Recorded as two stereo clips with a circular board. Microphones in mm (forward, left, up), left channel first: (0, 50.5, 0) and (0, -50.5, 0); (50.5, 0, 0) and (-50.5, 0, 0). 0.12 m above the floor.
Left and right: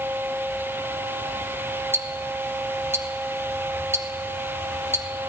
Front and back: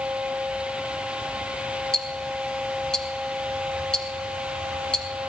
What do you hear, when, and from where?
1.9 s ticking: 75° right, 1.5 m